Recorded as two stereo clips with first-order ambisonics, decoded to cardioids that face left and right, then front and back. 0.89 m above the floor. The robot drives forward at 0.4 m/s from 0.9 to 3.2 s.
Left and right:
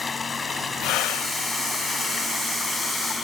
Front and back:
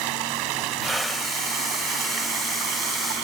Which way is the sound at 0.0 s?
165° left.